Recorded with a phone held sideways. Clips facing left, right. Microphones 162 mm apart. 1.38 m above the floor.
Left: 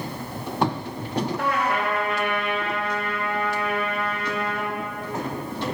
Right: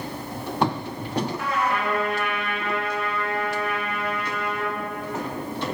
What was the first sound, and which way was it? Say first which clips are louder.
A trumpet: left 1 dB; 70° left (ahead or behind).